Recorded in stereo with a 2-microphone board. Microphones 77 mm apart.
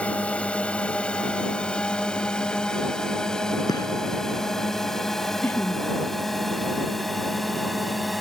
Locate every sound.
0.0 s a drone: 15° left (ahead or behind); by 8.2 s centre (ahead or behind)
3.7 s a gunshot: 60° left (ahead or behind)
5.4 s laughter: 25° left (ahead or behind)